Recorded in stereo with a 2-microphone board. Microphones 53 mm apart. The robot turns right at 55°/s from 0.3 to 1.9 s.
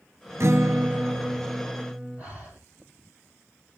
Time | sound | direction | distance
0.4 | a guitar | 110° right | 0.7 m
2.2 | breathing | 20° right (ahead or behind) | 9.5 m